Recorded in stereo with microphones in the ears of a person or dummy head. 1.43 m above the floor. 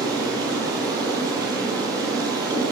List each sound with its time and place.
0.0 s running water: 20° right (ahead or behind), 4.5 m